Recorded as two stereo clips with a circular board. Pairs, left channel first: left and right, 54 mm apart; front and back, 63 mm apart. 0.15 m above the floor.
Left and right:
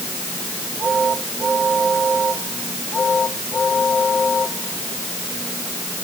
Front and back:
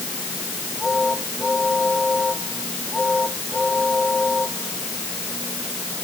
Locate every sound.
Only background noise.